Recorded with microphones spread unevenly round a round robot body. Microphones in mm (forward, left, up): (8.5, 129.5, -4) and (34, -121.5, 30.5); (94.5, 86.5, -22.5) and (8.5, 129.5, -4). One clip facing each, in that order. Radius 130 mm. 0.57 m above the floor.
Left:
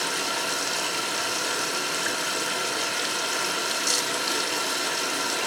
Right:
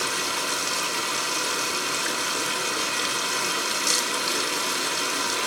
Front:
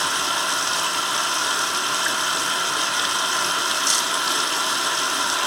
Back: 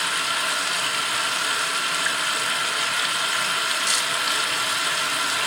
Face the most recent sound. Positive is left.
turn(degrees=5)